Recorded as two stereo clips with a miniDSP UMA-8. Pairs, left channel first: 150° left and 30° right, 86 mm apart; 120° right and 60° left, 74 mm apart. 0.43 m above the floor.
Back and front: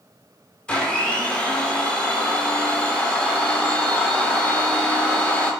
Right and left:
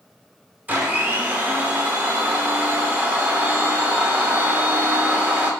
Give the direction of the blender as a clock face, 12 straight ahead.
9 o'clock.